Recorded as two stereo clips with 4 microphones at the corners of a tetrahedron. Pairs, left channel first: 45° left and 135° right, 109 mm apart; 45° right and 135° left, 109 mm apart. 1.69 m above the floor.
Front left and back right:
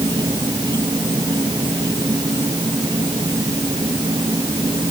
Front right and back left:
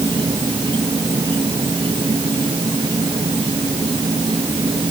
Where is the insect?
175° left.